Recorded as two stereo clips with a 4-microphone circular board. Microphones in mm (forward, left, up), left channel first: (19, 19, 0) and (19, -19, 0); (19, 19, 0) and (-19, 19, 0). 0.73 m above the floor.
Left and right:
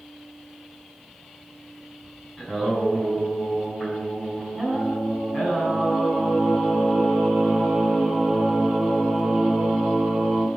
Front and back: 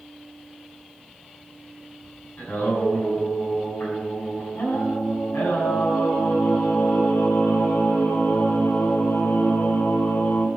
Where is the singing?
10° right, 6 m.